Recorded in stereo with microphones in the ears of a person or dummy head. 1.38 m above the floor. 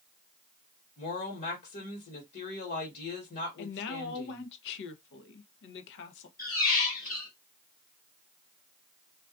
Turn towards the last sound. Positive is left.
turn(degrees=40)  # may be behind; listen again after turning